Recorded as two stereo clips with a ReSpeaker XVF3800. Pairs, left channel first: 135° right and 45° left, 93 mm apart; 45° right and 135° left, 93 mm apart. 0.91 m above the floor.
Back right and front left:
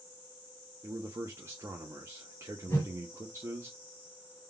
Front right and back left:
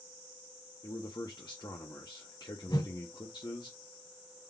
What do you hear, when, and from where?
0.8 s a man speaking: 10° right, 0.7 m
2.7 s a whoosh: 70° right, 1.4 m